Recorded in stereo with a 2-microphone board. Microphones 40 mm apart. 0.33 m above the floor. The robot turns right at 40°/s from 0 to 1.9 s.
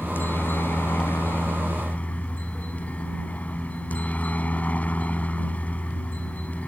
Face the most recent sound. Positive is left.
turn(degrees=135)